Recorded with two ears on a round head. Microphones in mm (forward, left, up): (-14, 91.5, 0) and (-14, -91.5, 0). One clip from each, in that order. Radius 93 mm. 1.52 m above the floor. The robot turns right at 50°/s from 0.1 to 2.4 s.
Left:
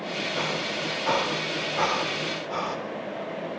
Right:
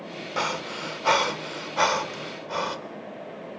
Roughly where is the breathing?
Right.